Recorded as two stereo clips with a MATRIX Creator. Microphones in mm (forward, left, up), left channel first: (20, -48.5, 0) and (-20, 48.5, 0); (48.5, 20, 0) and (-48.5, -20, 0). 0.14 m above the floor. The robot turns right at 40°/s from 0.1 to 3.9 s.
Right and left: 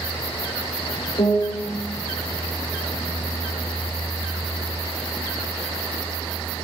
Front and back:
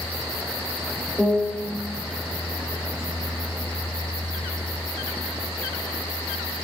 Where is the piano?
65° right, 4 m; by 1.6 s 45° right, 4 m.